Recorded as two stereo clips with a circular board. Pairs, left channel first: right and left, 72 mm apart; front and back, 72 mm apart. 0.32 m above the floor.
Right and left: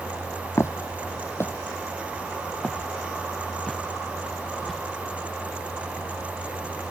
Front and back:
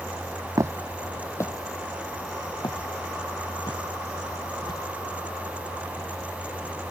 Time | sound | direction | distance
0.6 | footsteps | 140° right | ?